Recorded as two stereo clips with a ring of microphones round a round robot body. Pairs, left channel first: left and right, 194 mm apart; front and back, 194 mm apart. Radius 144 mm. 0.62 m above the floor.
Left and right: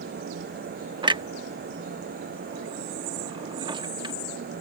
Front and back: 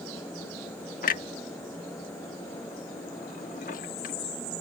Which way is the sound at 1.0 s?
30° right.